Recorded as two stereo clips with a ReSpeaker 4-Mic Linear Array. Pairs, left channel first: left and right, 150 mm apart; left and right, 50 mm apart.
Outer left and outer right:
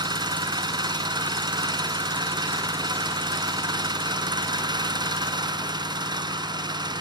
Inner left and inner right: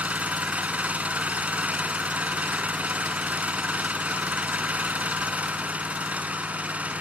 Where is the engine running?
30° right (ahead or behind), 1.2 m.